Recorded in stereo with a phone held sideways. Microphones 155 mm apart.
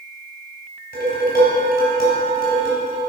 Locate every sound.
0.9 s dishes clattering: 75° left (ahead or behind), 3 m